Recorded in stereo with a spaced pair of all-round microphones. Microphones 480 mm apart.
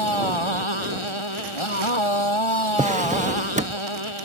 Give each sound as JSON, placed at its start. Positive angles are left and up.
{"t": 0.0, "sound": "a motorcycle", "side_deg": 80}
{"t": 2.8, "sound": "a drawer", "side_deg": -15}